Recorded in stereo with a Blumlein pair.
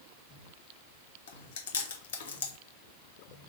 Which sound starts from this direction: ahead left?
Chewing, at 1.3 s.